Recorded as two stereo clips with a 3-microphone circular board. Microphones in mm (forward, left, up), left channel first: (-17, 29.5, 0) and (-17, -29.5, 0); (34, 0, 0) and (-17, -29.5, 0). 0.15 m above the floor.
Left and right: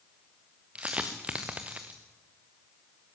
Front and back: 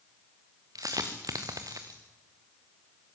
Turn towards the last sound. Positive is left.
turn(degrees=-160)